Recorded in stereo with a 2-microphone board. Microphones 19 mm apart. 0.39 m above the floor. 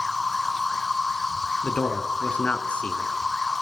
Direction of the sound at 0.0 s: 5° left (ahead or behind).